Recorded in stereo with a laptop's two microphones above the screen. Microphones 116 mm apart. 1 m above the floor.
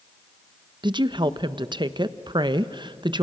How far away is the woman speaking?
About 0.8 m.